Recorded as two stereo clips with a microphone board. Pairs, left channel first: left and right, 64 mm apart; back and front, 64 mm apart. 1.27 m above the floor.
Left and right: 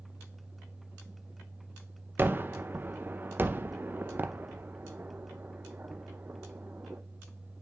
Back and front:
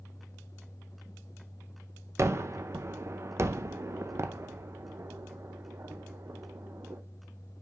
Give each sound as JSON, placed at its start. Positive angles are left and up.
{"t": 2.2, "sound": "a gunshot", "azimuth_deg": -35, "distance_m": 0.6}